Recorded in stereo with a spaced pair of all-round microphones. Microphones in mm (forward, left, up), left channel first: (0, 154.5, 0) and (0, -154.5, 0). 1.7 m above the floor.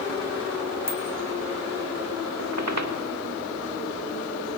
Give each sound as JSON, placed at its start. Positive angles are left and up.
{"t": 0.9, "sound": "a bicycle bell", "side_deg": 65, "distance_m": 7.5}
{"t": 2.4, "sound": "a squeak", "side_deg": -60, "distance_m": 2.0}